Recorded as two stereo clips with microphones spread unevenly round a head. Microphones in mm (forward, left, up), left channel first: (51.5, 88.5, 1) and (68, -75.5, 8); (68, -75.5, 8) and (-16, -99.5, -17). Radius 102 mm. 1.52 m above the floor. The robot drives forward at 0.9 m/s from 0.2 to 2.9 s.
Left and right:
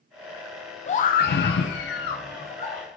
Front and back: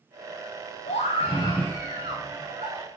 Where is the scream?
45° left, 0.8 m; by 3.0 s 160° left, 1.4 m.